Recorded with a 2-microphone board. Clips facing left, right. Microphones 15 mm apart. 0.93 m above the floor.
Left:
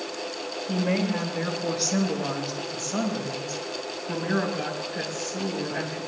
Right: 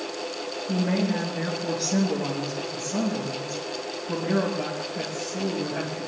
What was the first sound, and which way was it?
A woman speaking, 40° left (ahead or behind).